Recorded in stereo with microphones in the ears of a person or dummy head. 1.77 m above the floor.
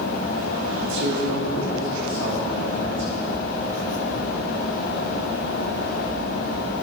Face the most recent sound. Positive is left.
turn(degrees=-75)  # may be behind; listen again after turning